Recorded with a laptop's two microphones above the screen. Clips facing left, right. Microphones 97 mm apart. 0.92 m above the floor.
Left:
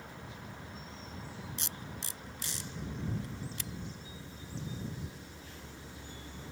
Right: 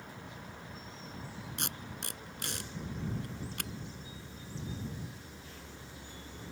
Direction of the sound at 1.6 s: 65° right (ahead or behind).